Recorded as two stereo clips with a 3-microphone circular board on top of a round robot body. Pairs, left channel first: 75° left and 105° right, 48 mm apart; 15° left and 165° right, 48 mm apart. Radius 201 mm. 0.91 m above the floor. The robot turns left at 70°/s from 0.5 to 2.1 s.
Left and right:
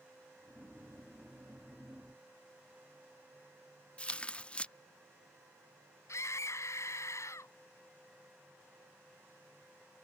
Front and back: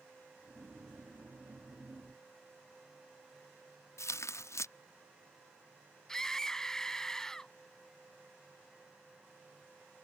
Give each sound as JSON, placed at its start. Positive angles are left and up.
{"t": 4.0, "sound": "tearing paper", "azimuth_deg": 5}
{"t": 6.1, "sound": "a scream", "azimuth_deg": 95}